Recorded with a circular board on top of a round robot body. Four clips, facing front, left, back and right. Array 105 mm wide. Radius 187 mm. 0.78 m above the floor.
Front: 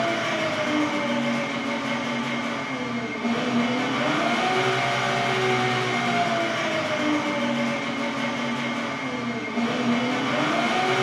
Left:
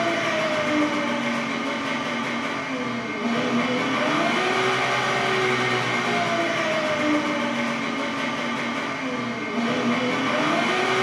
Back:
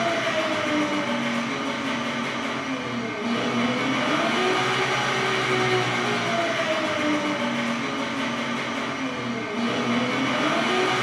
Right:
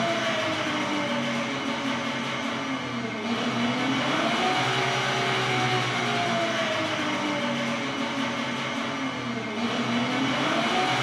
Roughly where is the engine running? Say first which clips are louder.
Left 3 dB, back 1 dB; left.